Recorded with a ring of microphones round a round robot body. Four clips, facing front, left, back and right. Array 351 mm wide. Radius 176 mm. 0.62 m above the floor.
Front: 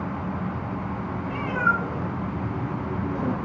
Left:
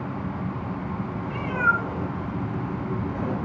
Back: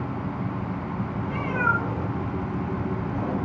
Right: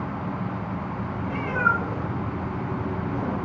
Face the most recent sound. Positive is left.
turn(degrees=-15)